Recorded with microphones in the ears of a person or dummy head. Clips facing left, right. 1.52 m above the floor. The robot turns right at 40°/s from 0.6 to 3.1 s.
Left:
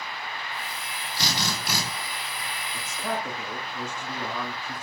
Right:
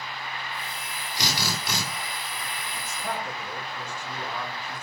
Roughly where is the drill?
Centre.